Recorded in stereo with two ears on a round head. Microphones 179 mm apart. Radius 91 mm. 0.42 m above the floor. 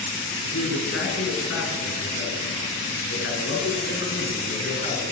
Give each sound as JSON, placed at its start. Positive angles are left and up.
{"t": 0.4, "sound": "a man speaking", "side_deg": 80, "distance_m": 4.5}